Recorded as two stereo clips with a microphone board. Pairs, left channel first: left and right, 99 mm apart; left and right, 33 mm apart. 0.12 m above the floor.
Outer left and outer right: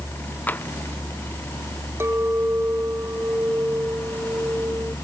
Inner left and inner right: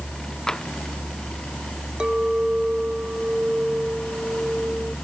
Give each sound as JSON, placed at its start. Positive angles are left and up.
{"t": 0.5, "sound": "tapping", "side_deg": 20}
{"t": 2.0, "sound": "a clink", "side_deg": -25}